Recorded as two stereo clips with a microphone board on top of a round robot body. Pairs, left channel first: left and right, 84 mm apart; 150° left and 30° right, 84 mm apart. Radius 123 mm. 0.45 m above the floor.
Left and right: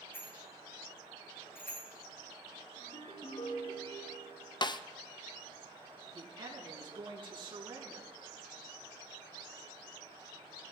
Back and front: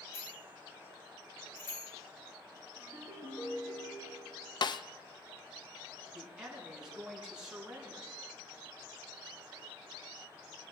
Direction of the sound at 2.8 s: 95° left.